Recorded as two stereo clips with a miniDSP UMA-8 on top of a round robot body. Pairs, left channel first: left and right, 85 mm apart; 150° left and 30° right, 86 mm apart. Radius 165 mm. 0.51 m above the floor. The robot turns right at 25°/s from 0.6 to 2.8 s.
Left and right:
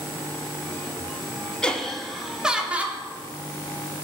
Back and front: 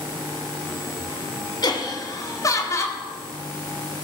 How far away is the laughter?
About 2 m.